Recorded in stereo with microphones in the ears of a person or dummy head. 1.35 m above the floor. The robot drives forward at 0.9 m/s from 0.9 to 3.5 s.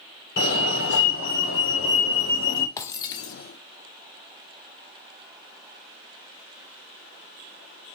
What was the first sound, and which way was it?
A fire alarm, 65° left (ahead or behind).